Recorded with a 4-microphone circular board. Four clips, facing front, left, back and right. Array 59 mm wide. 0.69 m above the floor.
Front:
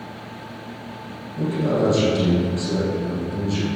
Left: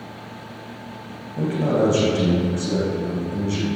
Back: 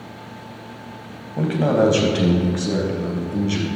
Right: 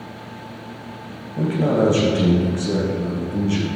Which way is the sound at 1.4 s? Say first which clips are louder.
Right 2 dB, back 3 dB; 175° right.